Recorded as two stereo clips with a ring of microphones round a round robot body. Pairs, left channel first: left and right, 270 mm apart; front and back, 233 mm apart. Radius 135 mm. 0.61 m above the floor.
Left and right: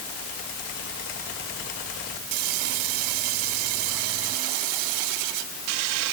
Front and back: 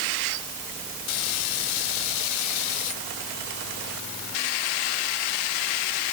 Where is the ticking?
I don't hear ticking.